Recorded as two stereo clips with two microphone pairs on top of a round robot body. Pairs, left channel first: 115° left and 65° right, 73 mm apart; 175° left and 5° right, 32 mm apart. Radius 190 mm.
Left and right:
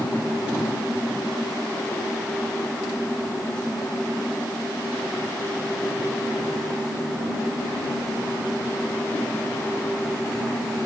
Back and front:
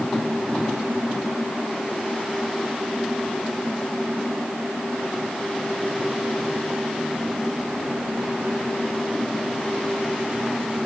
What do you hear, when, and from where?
Only background noise.